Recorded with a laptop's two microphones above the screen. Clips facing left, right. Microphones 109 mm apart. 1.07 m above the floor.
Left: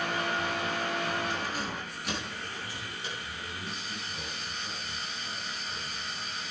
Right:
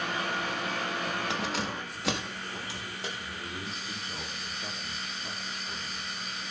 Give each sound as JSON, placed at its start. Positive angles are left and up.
{"t": 1.3, "sound": "keys jangling", "side_deg": -70, "distance_m": 0.9}
{"t": 3.2, "sound": "a man speaking", "side_deg": -70, "distance_m": 2.5}